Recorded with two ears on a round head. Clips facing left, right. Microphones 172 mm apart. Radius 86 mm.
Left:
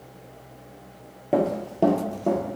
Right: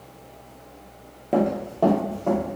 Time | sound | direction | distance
1.3 | running footsteps | 5° left (ahead or behind) | 0.7 m